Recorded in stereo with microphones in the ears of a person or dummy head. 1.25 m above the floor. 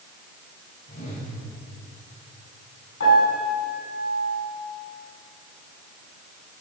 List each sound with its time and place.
0.9 s a whoosh: 45° left (ahead or behind), 6.5 m
3.0 s a piano: 85° left, 7 m